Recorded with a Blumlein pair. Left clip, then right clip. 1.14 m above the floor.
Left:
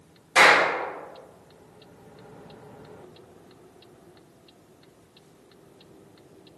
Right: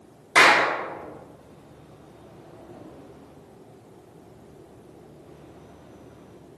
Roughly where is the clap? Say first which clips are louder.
Even; ahead right.